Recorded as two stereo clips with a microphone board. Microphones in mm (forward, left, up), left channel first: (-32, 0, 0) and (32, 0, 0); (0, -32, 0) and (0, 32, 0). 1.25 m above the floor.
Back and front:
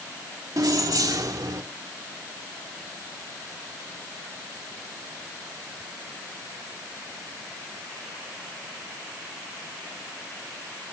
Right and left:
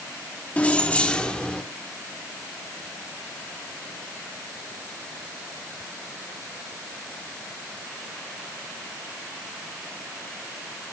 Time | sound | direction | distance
0.6 | keys jangling | 20° right | 1.8 m